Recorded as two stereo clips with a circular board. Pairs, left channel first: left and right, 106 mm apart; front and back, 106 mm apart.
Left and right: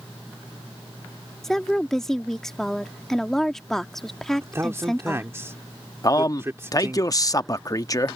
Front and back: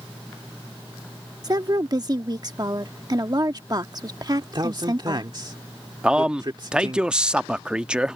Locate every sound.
1.4 s a woman speaking: 175° left
4.4 s a man speaking: 150° right
6.0 s a man speaking: 105° left